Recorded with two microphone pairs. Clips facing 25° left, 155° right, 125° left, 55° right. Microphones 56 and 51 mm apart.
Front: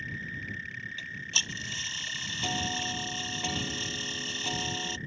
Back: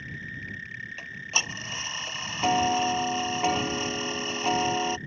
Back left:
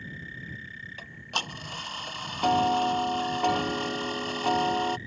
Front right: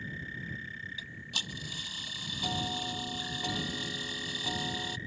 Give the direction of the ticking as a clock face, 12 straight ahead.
7 o'clock.